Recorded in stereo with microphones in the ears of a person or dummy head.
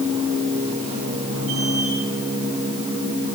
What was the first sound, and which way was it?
A machine running, 40° right (ahead or behind).